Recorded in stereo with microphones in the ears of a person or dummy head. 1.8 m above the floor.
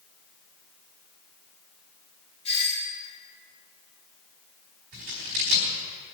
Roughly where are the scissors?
Right.